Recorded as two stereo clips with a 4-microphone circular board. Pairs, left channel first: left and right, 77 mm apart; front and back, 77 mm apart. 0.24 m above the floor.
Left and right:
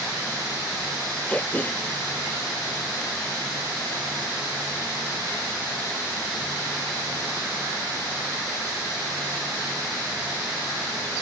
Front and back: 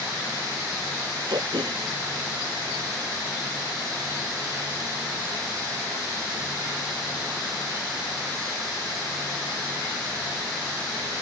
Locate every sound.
1.3 s throat clearing: 160° left